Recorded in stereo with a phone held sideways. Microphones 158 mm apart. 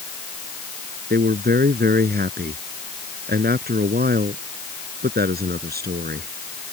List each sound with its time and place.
1.1 s a man speaking: 85° right